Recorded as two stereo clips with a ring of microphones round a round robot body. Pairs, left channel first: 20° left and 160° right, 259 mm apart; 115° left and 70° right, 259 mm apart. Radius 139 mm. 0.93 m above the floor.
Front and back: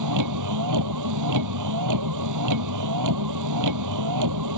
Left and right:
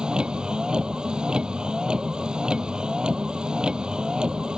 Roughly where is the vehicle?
Behind right.